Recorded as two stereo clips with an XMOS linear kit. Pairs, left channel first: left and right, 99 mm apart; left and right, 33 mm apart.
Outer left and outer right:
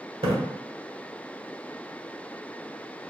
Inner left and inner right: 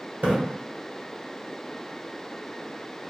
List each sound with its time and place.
0.2 s a splash: 70° right (ahead or behind), 0.8 m